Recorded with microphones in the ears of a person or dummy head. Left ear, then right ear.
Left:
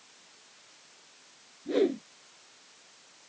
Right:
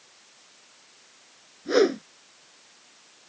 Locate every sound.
1.6 s a whoosh: 60° right (ahead or behind)